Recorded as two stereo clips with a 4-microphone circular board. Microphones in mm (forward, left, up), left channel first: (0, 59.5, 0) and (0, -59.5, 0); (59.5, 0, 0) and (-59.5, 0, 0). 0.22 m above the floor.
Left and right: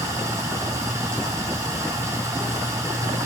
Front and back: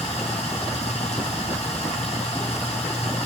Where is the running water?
25° right, 4 m.